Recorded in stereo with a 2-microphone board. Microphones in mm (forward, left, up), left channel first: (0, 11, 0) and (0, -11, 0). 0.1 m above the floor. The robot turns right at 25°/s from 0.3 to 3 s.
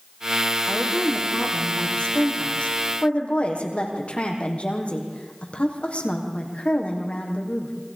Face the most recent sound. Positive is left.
turn(degrees=80)